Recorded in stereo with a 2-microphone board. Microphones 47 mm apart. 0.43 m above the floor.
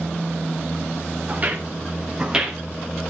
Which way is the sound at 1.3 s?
35° right (ahead or behind).